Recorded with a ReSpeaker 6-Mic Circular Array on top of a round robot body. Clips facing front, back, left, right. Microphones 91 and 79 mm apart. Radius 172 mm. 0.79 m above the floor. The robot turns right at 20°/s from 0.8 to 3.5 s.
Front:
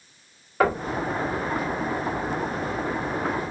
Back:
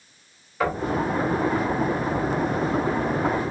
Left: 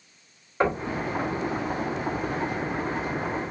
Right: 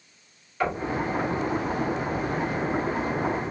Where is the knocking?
35° left, 1.5 m.